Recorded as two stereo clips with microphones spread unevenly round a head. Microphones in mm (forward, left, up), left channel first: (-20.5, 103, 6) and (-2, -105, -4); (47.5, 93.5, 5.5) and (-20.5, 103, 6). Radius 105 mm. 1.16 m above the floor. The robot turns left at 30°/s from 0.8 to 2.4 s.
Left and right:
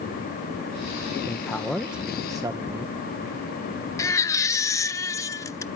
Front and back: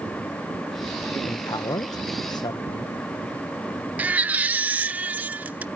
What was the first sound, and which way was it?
A man speaking, 20° left.